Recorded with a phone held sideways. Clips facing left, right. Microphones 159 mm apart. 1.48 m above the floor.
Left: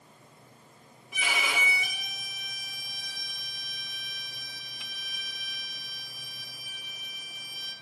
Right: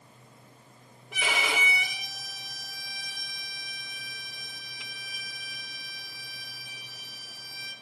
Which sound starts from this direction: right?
A violin, at 1.1 s.